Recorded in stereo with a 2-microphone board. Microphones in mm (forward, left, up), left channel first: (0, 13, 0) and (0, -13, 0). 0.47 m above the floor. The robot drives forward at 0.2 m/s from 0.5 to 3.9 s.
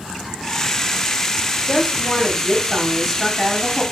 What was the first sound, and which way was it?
A woman speaking, 5° left (ahead or behind).